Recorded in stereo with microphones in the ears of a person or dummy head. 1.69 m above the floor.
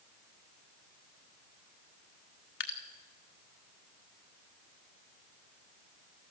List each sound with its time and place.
2.6 s dripping: 65° left (ahead or behind), 1.5 m